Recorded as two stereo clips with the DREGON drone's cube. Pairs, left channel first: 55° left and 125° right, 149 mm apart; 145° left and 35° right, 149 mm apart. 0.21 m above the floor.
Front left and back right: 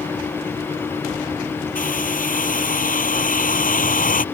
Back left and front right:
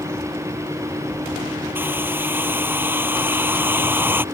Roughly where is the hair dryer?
Ahead left.